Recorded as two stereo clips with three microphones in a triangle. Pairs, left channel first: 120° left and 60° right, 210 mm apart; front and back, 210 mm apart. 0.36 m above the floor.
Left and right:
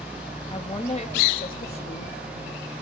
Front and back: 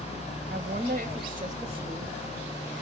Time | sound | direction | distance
0.5 | a woman speaking | straight behind | 1.5 m